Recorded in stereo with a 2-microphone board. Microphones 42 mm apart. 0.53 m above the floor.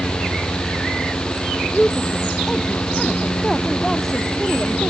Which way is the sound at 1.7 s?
10° left (ahead or behind).